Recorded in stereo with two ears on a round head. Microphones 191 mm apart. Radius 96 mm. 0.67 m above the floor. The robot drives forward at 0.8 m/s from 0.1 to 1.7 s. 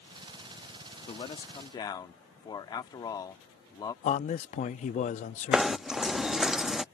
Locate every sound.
1.1 s a man speaking: 25° left (ahead or behind); by 3.9 s 20° left (ahead or behind)
4.0 s a man speaking: 35° left (ahead or behind)
5.5 s knocking: 5° right (ahead or behind)